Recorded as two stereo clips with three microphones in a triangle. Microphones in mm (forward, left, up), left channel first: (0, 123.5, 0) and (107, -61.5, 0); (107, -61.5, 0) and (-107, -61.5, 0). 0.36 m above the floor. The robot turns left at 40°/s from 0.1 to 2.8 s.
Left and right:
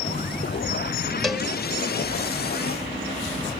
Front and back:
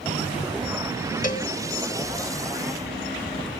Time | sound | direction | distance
1.2 | a cowbell | 30° left | 0.9 m